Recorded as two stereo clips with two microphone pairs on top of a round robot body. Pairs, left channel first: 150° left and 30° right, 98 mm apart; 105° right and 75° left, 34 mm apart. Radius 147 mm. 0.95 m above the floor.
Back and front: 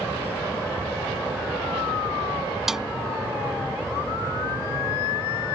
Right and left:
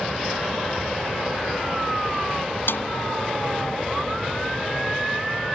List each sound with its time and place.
2.7 s a snare drum: 115° right